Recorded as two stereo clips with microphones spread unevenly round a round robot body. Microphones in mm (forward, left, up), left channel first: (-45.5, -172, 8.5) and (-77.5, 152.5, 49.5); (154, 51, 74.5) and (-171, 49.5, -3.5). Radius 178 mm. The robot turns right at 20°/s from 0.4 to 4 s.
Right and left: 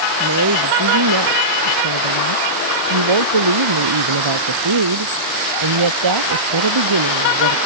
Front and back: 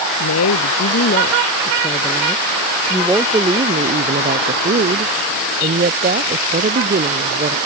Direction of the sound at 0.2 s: 45° left.